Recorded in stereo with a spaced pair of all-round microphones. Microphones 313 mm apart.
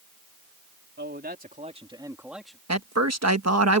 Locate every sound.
1.0 s a man speaking: 35° right (ahead or behind); by 2.6 s 5° left (ahead or behind)
2.7 s a man speaking: 50° right (ahead or behind)